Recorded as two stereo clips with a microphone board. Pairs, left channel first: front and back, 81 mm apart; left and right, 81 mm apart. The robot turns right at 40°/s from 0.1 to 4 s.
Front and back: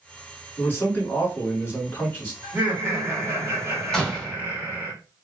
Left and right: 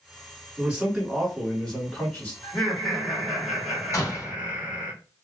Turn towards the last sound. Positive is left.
turn(degrees=80)